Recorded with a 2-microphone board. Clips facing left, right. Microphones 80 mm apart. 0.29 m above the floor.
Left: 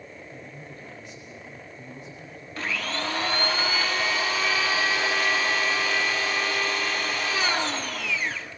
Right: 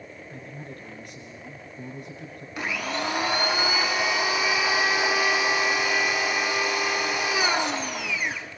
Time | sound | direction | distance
0.3 | a man speaking | 55° right (ahead or behind) | 4.5 m
2.6 | a blender | 15° right (ahead or behind) | 1.6 m